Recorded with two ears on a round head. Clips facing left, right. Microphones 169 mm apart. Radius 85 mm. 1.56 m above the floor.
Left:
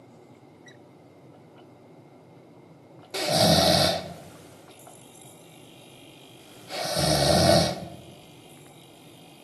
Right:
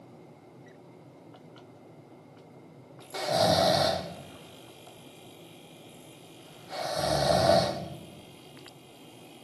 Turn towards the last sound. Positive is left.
turn(degrees=30)  # may be behind; listen again after turning